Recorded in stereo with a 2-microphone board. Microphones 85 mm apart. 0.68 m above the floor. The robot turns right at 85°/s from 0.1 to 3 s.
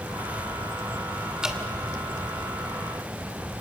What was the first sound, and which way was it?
Dripping, 10° right (ahead or behind).